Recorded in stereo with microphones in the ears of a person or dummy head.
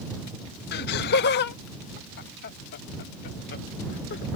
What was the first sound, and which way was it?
Laughter, 55° left (ahead or behind).